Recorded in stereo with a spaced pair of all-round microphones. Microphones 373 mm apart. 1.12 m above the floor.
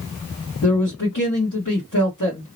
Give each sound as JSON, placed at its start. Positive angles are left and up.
{"t": 0.6, "sound": "a man speaking", "side_deg": 55, "distance_m": 1.3}